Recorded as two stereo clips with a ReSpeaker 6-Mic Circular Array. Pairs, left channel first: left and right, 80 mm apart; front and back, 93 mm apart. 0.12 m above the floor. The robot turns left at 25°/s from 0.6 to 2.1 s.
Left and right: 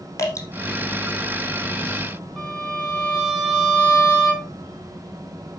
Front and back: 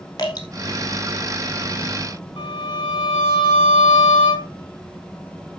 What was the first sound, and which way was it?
Dripping, 45° left.